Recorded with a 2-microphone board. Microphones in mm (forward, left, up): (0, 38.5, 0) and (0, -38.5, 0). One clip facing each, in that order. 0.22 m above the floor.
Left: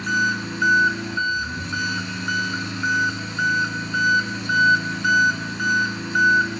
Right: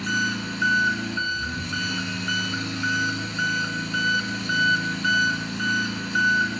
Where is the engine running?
20° left (ahead or behind), 1.0 m.